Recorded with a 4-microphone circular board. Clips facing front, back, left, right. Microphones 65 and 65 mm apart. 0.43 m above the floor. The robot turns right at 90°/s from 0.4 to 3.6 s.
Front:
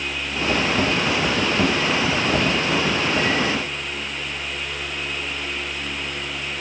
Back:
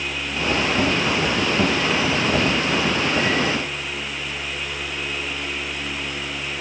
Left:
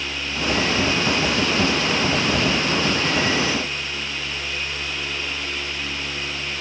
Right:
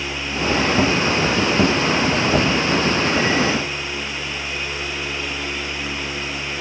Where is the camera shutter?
No camera shutter in this recording.